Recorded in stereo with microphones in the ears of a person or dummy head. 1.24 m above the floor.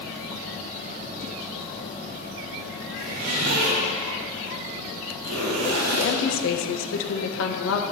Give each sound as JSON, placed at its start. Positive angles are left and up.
{"t": 3.0, "sound": "a zipper", "side_deg": -85, "distance_m": 3.0}
{"t": 5.9, "sound": "a woman speaking", "side_deg": 65, "distance_m": 1.2}